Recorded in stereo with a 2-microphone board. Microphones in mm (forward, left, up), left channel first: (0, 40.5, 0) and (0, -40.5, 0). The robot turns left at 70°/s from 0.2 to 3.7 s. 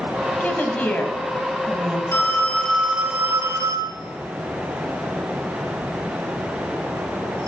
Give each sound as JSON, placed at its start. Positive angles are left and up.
{"t": 0.4, "sound": "a woman speaking", "side_deg": 20, "distance_m": 1.0}
{"t": 2.1, "sound": "a phone ringing", "side_deg": 30, "distance_m": 1.1}